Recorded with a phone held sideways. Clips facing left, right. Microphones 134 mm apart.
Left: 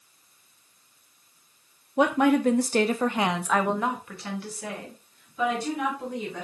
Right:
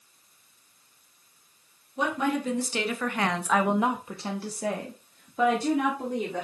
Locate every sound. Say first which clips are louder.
2.0 s a woman speaking: left 7 dB; 70° left (ahead or behind), 0.8 m; by 6.5 s 55° right (ahead or behind), 1.8 m